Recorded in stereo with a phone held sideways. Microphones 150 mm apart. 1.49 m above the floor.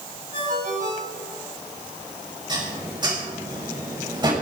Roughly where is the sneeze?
I don't hear a sneeze.